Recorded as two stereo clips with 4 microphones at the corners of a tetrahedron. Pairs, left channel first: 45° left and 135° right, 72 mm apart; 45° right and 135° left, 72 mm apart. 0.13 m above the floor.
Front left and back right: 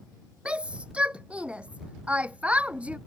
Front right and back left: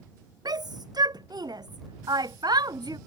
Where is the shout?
150° left; by 3.0 s 155° left.